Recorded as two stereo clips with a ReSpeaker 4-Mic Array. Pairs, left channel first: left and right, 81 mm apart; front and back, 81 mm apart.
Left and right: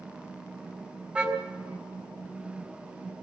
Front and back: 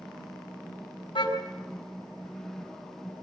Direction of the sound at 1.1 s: 15° right.